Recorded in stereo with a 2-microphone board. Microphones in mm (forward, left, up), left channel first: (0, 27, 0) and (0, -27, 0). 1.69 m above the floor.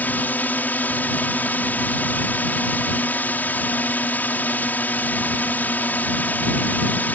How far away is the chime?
I don't hear a chime.